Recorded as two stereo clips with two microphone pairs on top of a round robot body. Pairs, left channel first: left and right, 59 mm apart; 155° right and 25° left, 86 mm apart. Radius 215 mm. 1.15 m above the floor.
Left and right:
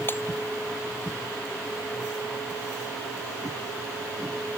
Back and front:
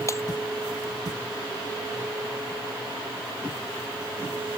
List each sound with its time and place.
0.1 s breaking glass: 145° left